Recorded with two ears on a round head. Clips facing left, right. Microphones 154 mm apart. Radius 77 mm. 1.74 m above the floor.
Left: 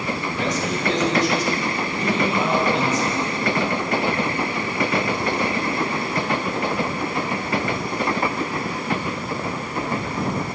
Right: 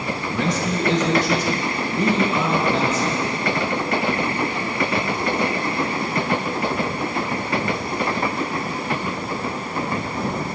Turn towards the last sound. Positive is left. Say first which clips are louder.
# right 4 dB
turn(degrees=-80)